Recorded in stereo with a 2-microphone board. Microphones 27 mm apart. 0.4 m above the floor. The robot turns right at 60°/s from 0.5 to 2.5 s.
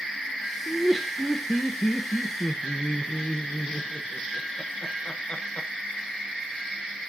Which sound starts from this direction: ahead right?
Laughter, at 0.7 s.